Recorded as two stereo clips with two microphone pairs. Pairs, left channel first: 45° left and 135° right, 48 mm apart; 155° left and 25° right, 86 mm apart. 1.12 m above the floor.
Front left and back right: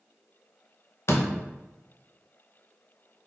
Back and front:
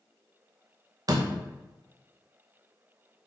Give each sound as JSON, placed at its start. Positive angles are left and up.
{"t": 1.1, "sound": "a door slam", "azimuth_deg": 15, "distance_m": 0.6}